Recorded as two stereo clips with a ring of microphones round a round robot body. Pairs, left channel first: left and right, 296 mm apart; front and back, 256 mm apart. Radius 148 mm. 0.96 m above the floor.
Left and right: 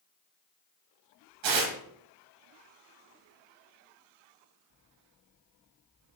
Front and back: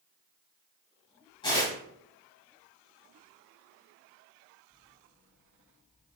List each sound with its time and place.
1.4 s tearing paper: 75° right, 2 m